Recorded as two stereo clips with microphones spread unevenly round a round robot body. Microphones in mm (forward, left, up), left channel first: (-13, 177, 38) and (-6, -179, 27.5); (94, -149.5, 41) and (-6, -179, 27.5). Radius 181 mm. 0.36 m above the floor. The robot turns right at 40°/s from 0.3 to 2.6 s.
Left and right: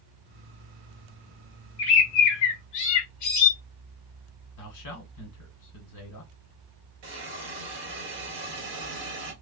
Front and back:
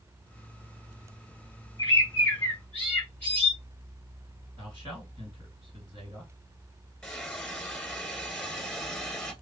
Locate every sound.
1.8 s a bird: 65° left, 1.1 m; by 3.5 s 95° left, 1.1 m
4.6 s a man speaking: 90° left, 1.8 m
7.0 s a hiss: 70° right, 1.8 m